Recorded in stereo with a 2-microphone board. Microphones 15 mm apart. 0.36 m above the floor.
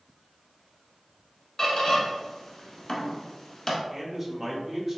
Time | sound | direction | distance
1.6 | a squeak | 40° left (ahead or behind) | 1.1 m
3.9 | a man speaking | 20° right (ahead or behind) | 1.0 m